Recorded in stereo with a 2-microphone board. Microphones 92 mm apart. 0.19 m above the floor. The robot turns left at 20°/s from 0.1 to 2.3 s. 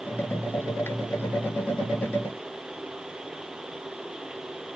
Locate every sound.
Only background noise.